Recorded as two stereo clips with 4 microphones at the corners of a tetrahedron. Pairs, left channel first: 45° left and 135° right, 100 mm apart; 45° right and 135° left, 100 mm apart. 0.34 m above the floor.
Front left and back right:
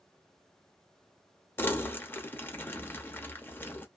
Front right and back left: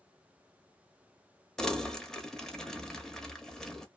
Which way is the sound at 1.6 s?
30° left.